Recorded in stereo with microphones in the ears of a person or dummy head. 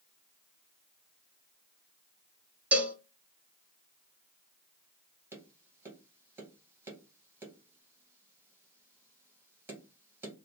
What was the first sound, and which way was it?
A cowbell, 10° right (ahead or behind).